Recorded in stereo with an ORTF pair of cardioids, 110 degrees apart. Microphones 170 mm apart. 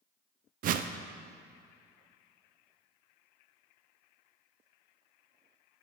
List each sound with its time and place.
0.6 s a whoosh: 55° right, 0.5 m